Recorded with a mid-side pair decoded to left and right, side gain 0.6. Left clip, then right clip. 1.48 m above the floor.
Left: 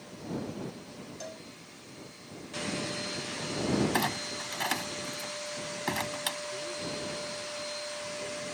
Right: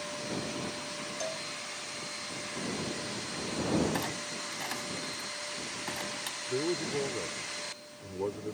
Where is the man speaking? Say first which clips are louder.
Right 4 dB; 65° right.